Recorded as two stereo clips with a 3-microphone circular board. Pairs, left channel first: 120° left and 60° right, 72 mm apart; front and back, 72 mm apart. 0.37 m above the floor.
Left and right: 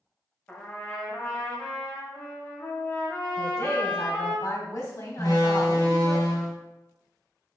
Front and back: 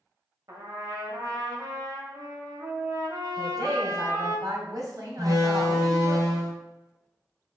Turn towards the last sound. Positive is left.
turn(degrees=155)